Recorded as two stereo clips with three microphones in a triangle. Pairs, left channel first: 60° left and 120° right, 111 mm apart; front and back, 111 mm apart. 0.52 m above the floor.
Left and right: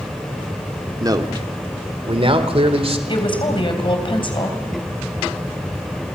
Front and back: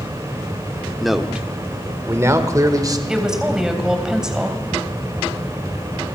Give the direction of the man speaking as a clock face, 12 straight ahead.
3 o'clock.